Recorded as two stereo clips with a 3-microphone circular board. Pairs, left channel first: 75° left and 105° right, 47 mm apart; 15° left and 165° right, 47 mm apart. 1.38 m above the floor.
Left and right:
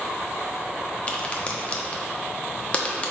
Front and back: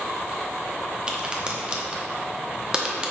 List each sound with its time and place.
1.1 s a crack: 130° left, 0.5 m